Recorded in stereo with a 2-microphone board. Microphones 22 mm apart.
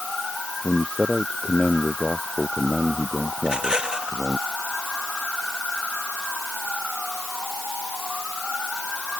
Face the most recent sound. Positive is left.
turn(degrees=-35)  # may be behind; listen again after turning